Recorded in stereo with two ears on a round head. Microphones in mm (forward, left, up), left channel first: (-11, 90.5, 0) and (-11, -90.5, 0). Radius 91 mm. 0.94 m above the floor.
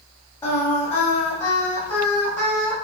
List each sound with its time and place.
0.4 s singing: 15° left (ahead or behind), 1.3 m